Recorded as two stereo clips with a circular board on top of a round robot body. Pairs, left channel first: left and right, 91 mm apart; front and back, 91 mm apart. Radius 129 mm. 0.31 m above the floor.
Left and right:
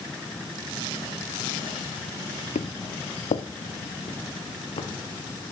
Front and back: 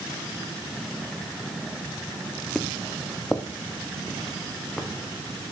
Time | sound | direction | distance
2.5 | footsteps | 90° left | 0.6 m